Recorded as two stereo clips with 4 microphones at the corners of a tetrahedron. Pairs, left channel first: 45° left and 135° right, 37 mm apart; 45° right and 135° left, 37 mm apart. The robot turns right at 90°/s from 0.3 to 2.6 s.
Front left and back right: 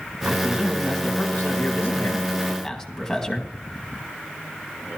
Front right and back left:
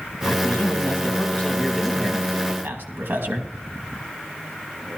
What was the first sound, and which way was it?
A man speaking, 85° right.